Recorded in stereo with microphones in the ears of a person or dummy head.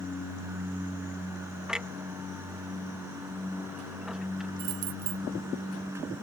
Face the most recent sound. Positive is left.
turn(degrees=-60)  # may be behind; listen again after turning